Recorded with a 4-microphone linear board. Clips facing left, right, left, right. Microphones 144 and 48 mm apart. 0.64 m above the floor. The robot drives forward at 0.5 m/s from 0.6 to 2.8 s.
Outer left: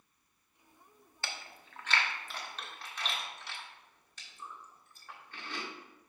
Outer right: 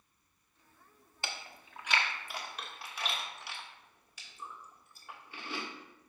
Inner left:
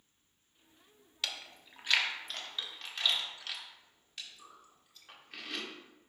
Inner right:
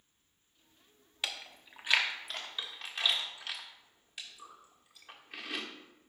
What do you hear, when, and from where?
1.2 s chewing: 15° right (ahead or behind), 0.7 m; by 5.7 s 10° right (ahead or behind), 1.3 m